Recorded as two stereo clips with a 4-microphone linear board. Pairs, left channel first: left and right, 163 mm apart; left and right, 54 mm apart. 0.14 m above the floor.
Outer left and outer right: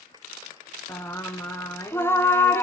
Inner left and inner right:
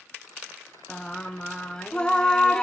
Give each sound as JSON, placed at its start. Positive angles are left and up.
{"t": 0.9, "sound": "singing", "side_deg": 15, "distance_m": 0.5}